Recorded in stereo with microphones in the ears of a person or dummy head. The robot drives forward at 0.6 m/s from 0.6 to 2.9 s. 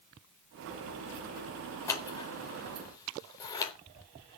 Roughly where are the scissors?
Centre.